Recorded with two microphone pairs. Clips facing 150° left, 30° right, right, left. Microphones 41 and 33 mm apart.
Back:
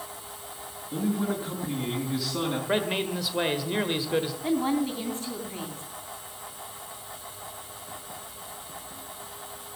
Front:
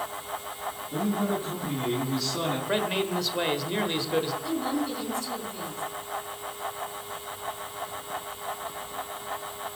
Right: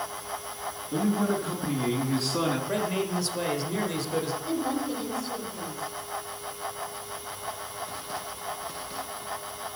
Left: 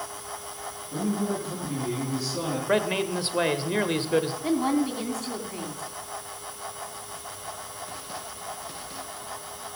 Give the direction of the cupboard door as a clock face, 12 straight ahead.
No cupboard door in this recording.